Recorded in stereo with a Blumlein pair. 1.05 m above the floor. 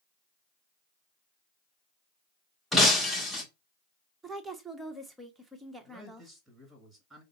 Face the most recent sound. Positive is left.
turn(degrees=-10)